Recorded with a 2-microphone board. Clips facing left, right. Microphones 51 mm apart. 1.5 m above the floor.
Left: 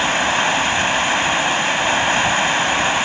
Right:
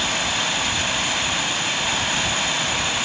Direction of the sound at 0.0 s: 35° left (ahead or behind).